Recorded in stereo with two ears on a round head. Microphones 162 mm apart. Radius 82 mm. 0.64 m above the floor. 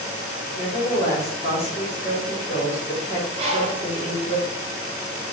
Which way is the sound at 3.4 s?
35° right (ahead or behind).